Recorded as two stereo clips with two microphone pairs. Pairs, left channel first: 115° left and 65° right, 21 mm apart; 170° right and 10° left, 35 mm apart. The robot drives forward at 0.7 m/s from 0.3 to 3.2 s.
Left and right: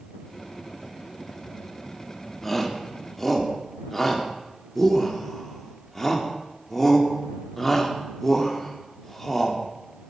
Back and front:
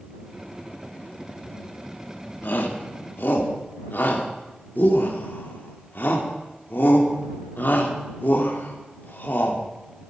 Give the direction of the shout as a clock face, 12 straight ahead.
6 o'clock.